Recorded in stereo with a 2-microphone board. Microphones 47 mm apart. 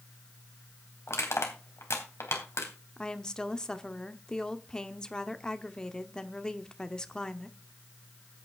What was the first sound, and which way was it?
Crushing, 70° left (ahead or behind).